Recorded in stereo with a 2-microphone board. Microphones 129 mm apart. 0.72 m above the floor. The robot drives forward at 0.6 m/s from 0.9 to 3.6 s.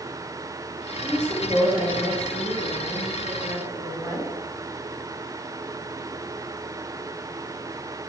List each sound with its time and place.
1.0 s a woman speaking: 40° right (ahead or behind), 1.3 m; by 4.3 s 25° right (ahead or behind), 1.9 m